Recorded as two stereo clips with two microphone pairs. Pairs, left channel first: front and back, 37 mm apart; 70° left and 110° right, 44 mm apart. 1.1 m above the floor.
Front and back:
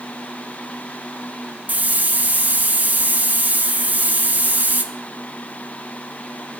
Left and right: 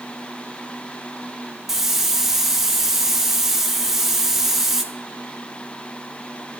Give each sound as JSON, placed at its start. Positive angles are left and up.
{"t": 1.7, "sound": "a hiss", "azimuth_deg": 165, "distance_m": 0.7}